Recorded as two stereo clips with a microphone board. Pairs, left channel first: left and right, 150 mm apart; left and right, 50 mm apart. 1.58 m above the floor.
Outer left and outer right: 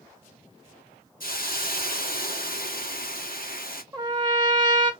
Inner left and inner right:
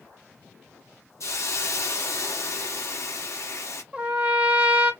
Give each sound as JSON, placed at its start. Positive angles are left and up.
{"t": 1.2, "sound": "a hiss", "side_deg": 65, "distance_m": 1.0}
{"t": 3.9, "sound": "a trumpet", "side_deg": -25, "distance_m": 1.1}